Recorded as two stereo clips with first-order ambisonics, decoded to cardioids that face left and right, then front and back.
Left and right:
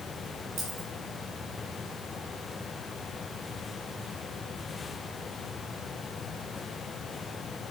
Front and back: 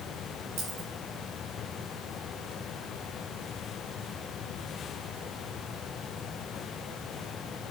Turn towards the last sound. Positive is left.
turn(degrees=-140)